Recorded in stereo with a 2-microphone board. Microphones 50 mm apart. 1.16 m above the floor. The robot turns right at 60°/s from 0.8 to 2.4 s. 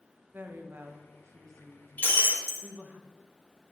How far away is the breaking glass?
About 0.8 m.